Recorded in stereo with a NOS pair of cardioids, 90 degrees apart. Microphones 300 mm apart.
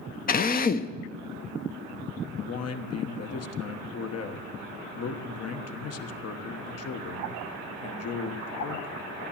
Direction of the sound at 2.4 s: 50° left.